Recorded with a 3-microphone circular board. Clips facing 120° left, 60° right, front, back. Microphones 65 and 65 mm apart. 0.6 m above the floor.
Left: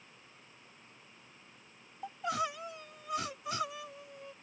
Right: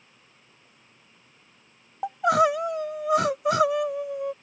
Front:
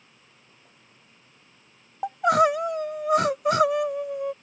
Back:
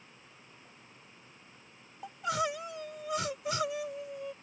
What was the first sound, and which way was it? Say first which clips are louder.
Crying: right 15 dB, front 13 dB; 35° right.